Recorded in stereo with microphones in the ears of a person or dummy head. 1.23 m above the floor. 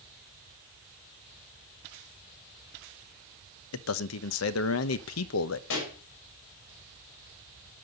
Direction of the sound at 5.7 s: 80° left.